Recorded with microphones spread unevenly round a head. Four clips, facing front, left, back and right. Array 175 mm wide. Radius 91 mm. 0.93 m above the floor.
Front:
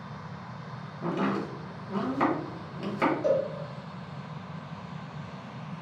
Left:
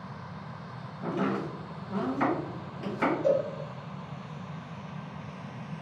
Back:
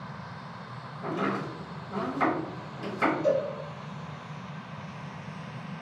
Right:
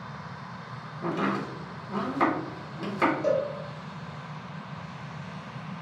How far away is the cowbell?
About 1.1 m.